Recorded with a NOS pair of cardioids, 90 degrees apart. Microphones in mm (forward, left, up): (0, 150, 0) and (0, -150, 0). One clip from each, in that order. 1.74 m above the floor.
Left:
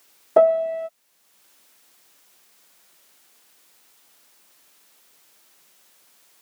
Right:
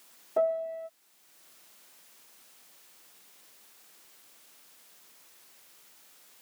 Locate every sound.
0.4 s a piano: 65° left